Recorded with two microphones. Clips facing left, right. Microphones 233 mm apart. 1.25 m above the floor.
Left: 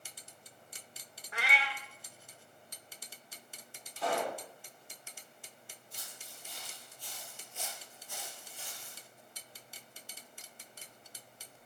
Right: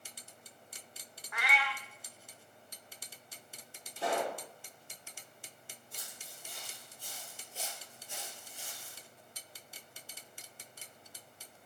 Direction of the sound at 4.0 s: 25° right (ahead or behind).